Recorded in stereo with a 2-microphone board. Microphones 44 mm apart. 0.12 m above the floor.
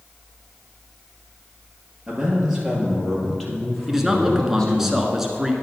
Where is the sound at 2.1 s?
20° right (ahead or behind), 2.5 m; by 4.9 s 15° left (ahead or behind), 4.5 m.